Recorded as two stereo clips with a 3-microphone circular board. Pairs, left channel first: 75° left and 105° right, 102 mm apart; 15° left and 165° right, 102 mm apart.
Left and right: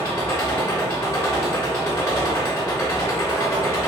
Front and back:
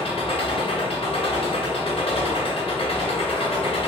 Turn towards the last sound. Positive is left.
turn(degrees=15)